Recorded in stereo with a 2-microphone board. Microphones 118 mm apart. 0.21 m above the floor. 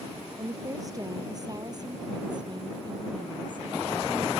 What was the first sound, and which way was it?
A woman speaking, 30° right (ahead or behind).